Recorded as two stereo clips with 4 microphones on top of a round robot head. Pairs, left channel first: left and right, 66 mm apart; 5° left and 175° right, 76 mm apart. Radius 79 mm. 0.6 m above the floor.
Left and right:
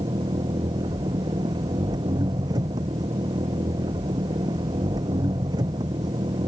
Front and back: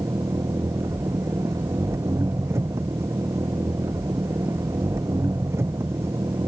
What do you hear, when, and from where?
0.0 s an engine running: 115° right